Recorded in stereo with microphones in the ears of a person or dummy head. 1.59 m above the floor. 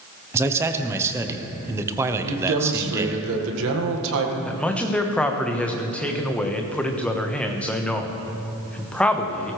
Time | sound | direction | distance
0.3 | a man speaking | 15° right (ahead or behind) | 0.9 m
2.2 | a man speaking | 75° right (ahead or behind) | 1.7 m
4.5 | a man speaking | 5° left (ahead or behind) | 1.2 m